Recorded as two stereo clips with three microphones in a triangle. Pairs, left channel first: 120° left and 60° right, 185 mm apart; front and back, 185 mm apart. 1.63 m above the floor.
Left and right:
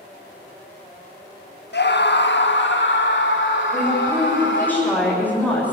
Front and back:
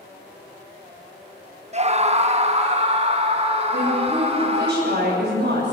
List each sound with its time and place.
1.7 s a scream: 130° left, 1.2 m; by 4.7 s 125° left, 4.5 m
3.7 s a woman speaking: 160° right, 8 m